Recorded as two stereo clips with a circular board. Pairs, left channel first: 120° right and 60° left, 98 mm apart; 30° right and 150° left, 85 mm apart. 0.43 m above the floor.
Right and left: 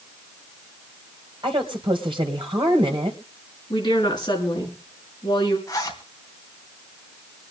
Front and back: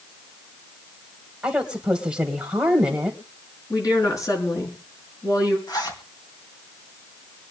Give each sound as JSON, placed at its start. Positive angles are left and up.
{"t": 1.4, "sound": "a woman speaking", "azimuth_deg": 70, "distance_m": 2.0}
{"t": 3.7, "sound": "a woman speaking", "azimuth_deg": -80, "distance_m": 5.0}
{"t": 5.7, "sound": "a zipper", "azimuth_deg": -70, "distance_m": 3.0}